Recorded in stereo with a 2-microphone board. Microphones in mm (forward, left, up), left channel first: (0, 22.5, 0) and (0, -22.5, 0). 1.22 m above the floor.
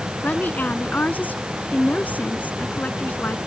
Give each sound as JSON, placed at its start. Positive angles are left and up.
{"t": 0.2, "sound": "a woman speaking", "side_deg": 40}